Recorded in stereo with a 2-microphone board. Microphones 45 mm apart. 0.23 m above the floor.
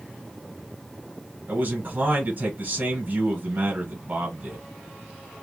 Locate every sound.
1.5 s a man speaking: 45° right (ahead or behind), 1.4 m